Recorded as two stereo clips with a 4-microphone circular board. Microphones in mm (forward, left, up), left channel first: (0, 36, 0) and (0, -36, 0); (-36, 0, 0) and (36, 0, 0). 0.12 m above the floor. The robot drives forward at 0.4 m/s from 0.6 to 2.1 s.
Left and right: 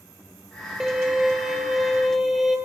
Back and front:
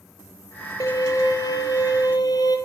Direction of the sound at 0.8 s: 170° right.